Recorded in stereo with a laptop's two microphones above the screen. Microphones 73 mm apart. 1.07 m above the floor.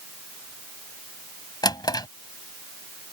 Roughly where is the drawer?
Left.